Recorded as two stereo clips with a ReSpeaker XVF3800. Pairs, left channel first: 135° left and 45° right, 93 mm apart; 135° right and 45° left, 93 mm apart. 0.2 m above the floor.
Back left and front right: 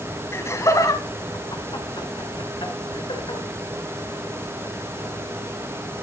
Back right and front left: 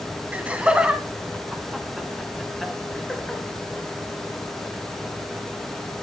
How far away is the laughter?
About 1.5 m.